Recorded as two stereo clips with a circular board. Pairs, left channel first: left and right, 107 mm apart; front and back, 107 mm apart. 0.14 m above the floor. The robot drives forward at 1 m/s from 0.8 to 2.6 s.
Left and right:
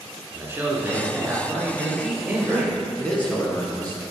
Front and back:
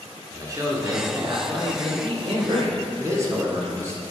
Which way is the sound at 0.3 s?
145° right.